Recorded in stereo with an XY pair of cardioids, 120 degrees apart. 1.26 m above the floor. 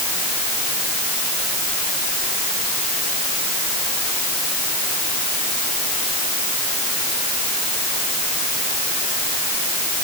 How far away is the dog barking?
I don't hear a dog barking.